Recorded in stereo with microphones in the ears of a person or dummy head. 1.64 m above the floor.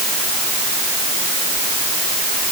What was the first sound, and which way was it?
Only background noise.